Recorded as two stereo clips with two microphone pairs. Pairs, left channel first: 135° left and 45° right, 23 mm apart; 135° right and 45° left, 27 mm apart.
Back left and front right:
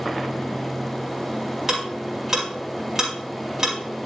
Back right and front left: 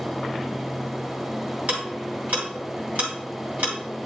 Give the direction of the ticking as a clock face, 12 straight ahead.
11 o'clock.